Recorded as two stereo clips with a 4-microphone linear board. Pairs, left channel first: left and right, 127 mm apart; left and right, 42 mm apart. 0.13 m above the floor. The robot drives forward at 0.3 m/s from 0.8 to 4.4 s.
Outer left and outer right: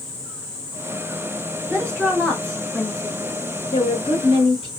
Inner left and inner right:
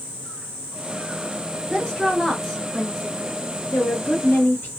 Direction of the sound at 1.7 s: 10° left (ahead or behind).